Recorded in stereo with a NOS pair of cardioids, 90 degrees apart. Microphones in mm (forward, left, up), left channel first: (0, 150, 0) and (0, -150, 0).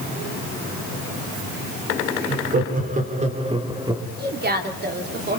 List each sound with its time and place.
2.3 s laughter: 30° right, 4.5 m; by 4.0 s 10° right, 3 m
4.2 s a woman speaking: 30° right, 3.5 m